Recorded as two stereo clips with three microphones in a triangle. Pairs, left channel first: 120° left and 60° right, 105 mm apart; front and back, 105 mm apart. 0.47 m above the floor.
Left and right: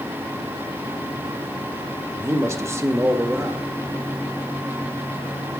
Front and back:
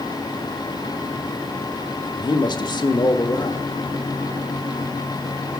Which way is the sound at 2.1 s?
10° right.